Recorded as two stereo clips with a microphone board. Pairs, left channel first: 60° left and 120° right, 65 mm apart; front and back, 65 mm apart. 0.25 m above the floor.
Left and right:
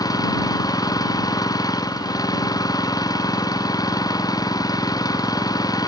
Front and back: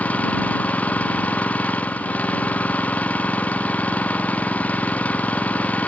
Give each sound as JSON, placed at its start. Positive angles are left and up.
{"t": 0.0, "sound": "an engine running", "azimuth_deg": 70}